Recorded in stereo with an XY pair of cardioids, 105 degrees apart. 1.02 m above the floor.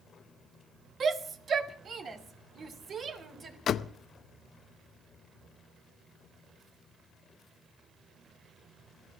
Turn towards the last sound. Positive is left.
turn(degrees=60)